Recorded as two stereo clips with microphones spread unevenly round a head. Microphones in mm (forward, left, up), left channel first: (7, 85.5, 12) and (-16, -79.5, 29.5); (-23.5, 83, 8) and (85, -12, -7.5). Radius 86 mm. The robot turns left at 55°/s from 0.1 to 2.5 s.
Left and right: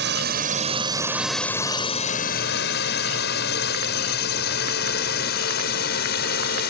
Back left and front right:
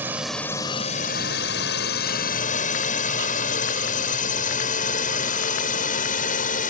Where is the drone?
120° right; by 6.7 s 110° left.